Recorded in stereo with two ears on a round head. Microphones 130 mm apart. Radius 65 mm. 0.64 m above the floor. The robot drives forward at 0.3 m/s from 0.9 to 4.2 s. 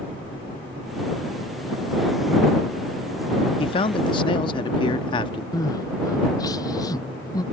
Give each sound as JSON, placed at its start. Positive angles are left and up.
{"t": 3.6, "sound": "a man speaking", "side_deg": 35}
{"t": 5.5, "sound": "crying", "side_deg": 25}